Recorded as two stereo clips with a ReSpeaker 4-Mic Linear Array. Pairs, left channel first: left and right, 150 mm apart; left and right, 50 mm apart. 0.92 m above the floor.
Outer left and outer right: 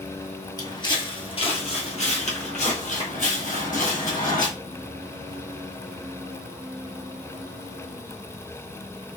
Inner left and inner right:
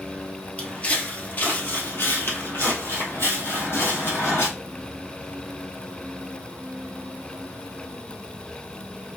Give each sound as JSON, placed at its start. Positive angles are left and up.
{"t": 0.6, "sound": "footsteps", "side_deg": 25, "distance_m": 1.4}